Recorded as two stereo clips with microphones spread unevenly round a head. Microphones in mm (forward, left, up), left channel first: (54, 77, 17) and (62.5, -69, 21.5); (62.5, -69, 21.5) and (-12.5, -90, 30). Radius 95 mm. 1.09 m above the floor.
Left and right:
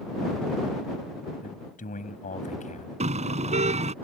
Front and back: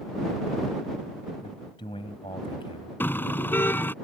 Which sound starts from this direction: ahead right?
A car horn, at 3.0 s.